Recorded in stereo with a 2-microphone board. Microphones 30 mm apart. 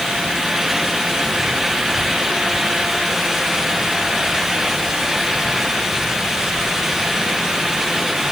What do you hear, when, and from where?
Only background noise.